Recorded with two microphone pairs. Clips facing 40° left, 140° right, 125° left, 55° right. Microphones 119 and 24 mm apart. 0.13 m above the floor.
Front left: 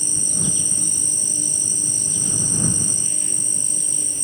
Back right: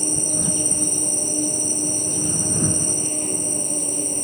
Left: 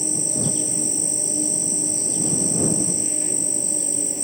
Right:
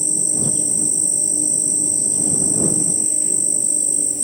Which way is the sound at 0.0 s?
175° right.